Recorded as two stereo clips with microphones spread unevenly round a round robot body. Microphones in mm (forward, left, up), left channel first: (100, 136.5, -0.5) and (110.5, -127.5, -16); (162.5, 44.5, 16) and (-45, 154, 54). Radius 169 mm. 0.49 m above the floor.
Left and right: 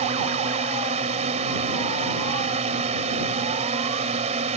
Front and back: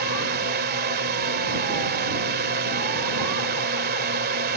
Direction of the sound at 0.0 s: 155° right.